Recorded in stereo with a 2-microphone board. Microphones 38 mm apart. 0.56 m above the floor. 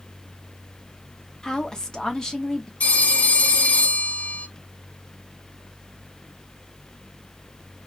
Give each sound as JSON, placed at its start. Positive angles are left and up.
{"t": 1.4, "sound": "a woman speaking", "side_deg": 20, "distance_m": 0.7}
{"t": 2.8, "sound": "a phone ringing", "side_deg": 50, "distance_m": 1.4}